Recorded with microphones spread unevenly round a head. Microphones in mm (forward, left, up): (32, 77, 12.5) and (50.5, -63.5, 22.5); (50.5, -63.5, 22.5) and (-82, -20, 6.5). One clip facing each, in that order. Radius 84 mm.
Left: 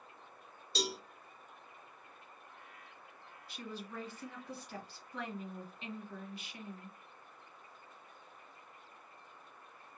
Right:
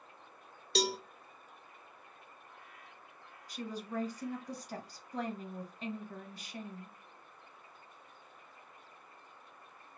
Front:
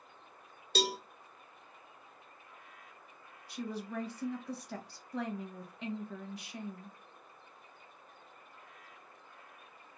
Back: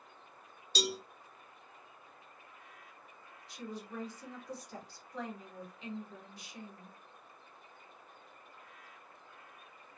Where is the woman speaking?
35° right, 1.2 m.